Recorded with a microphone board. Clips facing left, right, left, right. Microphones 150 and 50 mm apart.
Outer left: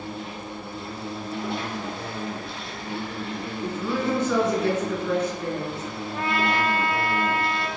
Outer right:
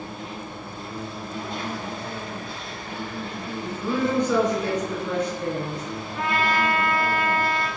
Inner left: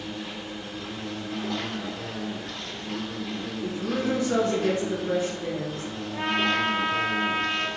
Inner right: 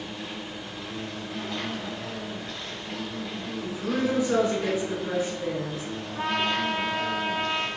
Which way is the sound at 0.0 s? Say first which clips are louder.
Outer left 1 dB, inner left 1 dB; 75° left (ahead or behind).